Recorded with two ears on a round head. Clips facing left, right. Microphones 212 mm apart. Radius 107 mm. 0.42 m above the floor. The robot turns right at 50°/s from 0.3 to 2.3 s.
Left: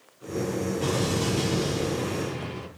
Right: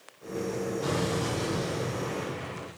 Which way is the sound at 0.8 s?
45° left.